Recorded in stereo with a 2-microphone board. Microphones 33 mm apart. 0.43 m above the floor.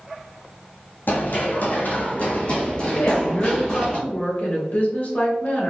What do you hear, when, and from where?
1.1 s running footsteps: 70° left (ahead or behind), 1.0 m; by 4.0 s 15° left (ahead or behind), 1.6 m
3.0 s a woman speaking: 55° left (ahead or behind), 1.4 m